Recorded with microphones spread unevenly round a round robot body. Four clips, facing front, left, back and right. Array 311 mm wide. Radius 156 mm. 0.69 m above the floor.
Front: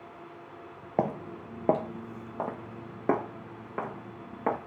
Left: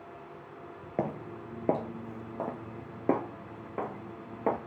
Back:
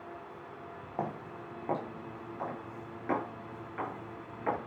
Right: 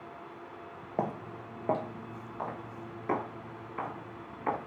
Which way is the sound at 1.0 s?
15° left.